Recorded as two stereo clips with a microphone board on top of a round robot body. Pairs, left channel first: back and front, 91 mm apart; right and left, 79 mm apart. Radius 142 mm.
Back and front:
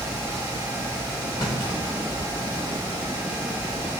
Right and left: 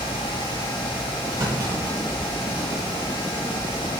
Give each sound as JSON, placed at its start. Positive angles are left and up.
{"t": 1.4, "sound": "a clunk", "azimuth_deg": 135, "distance_m": 3.5}